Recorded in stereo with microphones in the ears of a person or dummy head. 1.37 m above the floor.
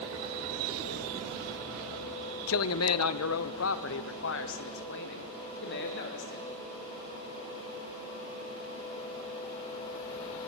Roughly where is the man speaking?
Left.